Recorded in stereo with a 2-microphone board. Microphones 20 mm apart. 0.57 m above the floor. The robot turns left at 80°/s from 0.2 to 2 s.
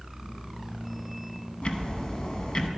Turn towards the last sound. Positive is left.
turn(degrees=45)